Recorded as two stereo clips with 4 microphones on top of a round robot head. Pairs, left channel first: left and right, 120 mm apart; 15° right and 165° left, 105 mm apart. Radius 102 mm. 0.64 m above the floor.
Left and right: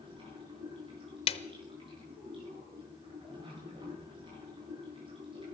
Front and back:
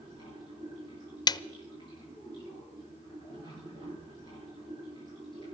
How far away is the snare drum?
About 0.5 m.